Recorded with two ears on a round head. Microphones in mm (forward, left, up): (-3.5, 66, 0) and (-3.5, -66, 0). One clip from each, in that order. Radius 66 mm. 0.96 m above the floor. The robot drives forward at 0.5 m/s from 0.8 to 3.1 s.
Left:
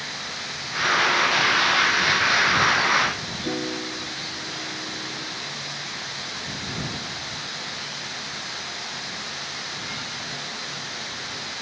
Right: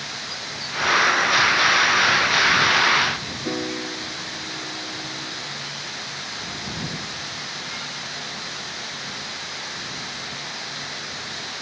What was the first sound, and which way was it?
A piano, 60° right (ahead or behind).